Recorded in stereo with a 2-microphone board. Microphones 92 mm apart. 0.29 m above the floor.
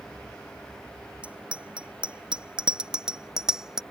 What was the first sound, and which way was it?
A bicycle bell, 15° right (ahead or behind).